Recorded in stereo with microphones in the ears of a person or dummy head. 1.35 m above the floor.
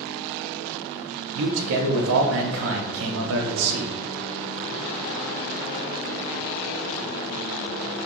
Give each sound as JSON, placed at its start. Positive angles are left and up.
{"t": 1.4, "sound": "a man speaking", "side_deg": -75, "distance_m": 0.6}